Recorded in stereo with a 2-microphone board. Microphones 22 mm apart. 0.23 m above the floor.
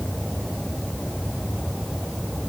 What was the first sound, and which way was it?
Only background noise.